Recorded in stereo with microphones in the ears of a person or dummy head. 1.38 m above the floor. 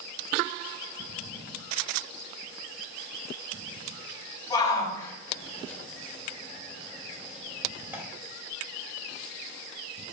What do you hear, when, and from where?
4.5 s a shout: 15° left (ahead or behind), 3.5 m; by 8.0 s 15° right (ahead or behind), 2.5 m